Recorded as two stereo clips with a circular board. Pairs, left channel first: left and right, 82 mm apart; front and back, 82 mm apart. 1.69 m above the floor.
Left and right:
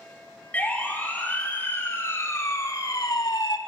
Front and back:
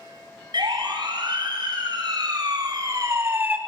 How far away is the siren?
About 5 m.